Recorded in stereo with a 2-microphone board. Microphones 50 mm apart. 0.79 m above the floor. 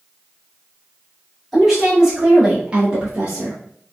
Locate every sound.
1.5 s a woman speaking: 5° right (ahead or behind), 1.8 m; by 3.6 s 35° right (ahead or behind), 0.9 m